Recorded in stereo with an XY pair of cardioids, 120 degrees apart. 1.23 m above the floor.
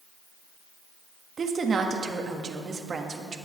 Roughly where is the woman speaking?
Ahead right.